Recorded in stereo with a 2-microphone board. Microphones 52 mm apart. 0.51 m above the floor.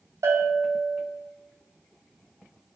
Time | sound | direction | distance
0.2 | a bell | 65° right (ahead or behind) | 2.5 m